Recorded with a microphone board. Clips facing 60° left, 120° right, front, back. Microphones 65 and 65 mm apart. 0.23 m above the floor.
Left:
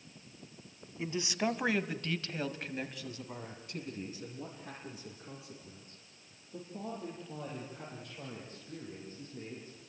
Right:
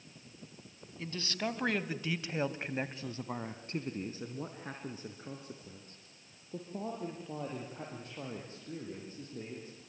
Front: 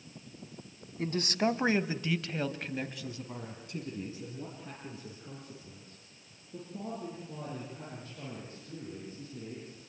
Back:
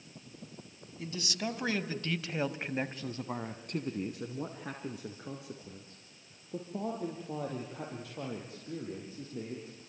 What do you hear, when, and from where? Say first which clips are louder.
1.0 s a man speaking: left 4 dB, front 7 dB; 5° right, 1.7 m; by 9.8 s 175° right, 8 m